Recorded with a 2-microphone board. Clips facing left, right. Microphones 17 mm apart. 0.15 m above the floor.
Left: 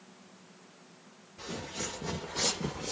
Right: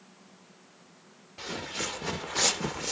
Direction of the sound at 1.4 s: 75° right (ahead or behind).